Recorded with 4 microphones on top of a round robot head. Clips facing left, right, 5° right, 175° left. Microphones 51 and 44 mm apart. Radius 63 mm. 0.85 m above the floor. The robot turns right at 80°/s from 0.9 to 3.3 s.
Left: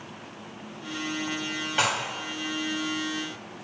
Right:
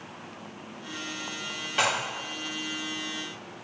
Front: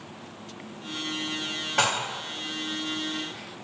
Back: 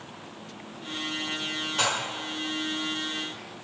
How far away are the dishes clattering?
About 1.7 m.